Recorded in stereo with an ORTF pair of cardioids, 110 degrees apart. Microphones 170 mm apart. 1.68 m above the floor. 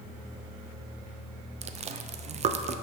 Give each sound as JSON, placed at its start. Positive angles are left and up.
{"t": 1.6, "sound": "chewing", "azimuth_deg": -40, "distance_m": 0.6}